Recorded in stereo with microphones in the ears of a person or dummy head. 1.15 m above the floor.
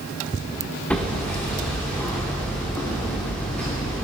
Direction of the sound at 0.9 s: 10° left (ahead or behind).